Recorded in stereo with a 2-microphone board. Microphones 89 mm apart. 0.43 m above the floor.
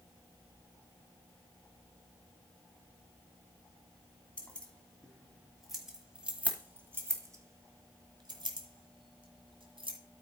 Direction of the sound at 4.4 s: 15° left (ahead or behind).